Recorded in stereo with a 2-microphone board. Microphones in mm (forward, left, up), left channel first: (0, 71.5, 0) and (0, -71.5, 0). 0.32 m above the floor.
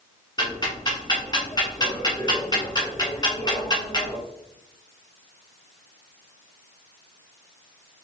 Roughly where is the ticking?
Left.